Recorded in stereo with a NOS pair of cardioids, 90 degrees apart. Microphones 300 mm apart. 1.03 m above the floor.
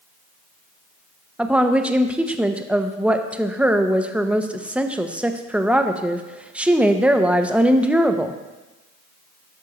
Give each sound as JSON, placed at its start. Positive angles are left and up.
{"t": 1.4, "sound": "a woman speaking", "azimuth_deg": -5, "distance_m": 0.6}